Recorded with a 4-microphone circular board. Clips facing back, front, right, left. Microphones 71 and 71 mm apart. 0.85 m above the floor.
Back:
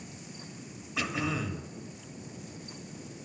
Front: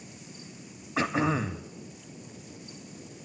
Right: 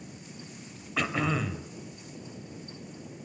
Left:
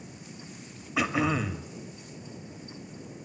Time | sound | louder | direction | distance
1.0 | throat clearing | front 6 dB, left 2 dB | 15° left | 0.7 m